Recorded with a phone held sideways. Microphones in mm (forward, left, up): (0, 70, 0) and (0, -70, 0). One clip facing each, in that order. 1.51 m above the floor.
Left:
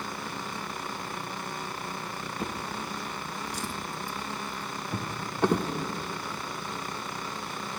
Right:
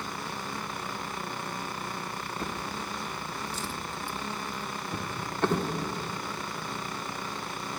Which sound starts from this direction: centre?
A drawer, at 2.4 s.